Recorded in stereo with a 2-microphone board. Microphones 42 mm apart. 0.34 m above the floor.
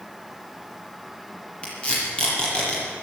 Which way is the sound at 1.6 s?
25° left (ahead or behind).